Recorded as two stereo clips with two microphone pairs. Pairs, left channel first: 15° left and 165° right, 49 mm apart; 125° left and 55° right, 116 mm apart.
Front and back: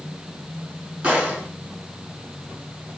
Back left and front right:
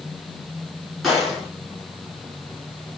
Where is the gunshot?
145° right, 1.5 m.